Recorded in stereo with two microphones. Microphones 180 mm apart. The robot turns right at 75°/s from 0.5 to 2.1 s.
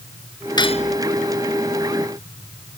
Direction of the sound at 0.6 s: 25° left (ahead or behind).